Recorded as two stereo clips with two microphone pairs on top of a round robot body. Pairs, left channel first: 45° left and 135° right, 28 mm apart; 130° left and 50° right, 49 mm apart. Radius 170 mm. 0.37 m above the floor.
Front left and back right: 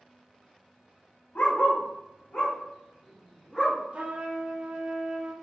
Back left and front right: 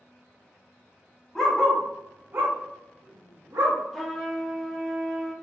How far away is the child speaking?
I don't hear a child speaking.